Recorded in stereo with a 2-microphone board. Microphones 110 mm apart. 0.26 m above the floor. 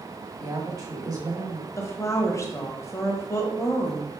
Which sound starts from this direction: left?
A woman speaking, at 1.8 s.